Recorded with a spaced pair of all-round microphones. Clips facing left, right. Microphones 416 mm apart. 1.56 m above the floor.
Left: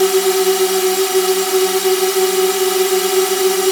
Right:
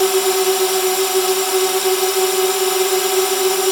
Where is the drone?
35° left (ahead or behind).